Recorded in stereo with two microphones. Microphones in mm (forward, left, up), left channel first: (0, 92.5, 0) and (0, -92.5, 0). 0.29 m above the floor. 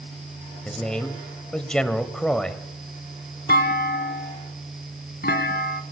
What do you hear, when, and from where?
0.7 s a man speaking: 5° left (ahead or behind), 1.5 m
3.5 s a clunk: 65° left (ahead or behind), 1.3 m